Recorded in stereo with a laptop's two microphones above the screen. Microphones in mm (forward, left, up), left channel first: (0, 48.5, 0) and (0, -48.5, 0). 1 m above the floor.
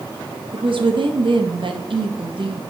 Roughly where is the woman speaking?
Right.